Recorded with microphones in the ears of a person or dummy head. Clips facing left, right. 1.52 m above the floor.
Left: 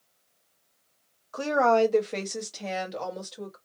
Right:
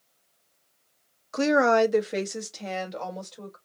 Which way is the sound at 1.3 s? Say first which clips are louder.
Right 2 dB; 30° right (ahead or behind).